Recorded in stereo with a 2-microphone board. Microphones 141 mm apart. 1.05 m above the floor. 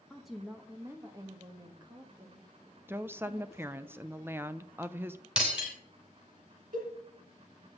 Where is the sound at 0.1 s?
5° left (ahead or behind), 1.0 m; by 3.9 s 50° right (ahead or behind), 2.5 m.